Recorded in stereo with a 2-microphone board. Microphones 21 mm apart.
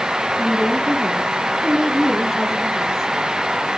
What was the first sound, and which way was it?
A woman speaking, 5° right (ahead or behind).